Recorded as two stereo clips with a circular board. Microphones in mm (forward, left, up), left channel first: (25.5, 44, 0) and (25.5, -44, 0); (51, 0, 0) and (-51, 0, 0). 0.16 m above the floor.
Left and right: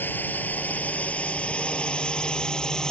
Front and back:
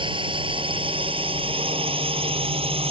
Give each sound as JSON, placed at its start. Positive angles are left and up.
{"t": 0.0, "sound": "a drone", "azimuth_deg": 155}